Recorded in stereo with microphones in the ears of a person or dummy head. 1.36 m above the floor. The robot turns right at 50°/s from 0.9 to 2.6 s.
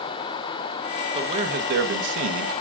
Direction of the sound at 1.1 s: 160° right.